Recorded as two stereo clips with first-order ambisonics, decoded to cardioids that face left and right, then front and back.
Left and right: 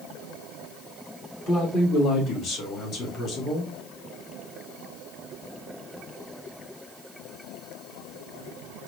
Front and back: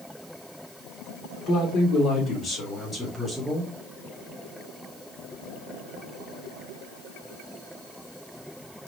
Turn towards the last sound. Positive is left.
turn(degrees=110)